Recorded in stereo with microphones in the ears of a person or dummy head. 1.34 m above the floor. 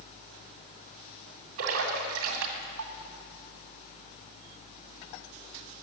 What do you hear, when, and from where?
1.6 s a splash: 70° right (ahead or behind), 2 m